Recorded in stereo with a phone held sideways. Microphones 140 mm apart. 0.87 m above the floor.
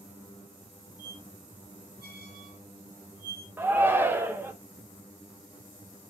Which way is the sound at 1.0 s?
85° right.